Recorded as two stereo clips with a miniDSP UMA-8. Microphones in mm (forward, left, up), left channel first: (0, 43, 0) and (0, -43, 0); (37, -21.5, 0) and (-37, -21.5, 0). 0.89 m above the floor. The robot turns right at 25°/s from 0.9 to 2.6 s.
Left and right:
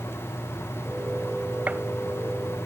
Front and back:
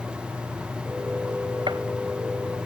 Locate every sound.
1.7 s a gunshot: 165° right; by 1.8 s 160° right